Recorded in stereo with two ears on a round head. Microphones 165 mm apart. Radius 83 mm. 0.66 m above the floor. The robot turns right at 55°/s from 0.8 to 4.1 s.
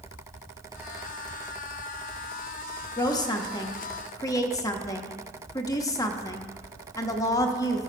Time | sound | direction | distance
3.0 | a woman speaking | 20° left (ahead or behind) | 0.8 m